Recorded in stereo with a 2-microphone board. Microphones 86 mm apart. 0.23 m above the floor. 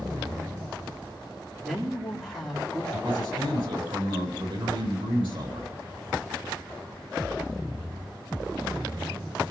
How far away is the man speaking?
About 9 m.